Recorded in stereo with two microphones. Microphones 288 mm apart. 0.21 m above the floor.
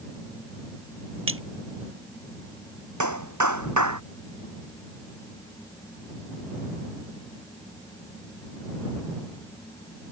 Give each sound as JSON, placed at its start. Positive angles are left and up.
{"t": 1.3, "sound": "a splash", "side_deg": -45}
{"t": 3.0, "sound": "a clap", "side_deg": -85}